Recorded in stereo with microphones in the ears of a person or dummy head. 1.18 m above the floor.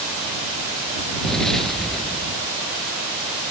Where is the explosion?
Centre (ahead or behind).